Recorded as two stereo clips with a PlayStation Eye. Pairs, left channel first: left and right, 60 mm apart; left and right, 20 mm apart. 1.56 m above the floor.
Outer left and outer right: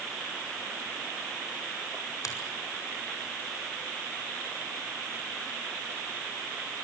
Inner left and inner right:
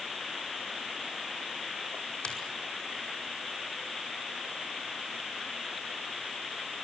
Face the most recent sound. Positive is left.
turn(degrees=70)  # may be behind; listen again after turning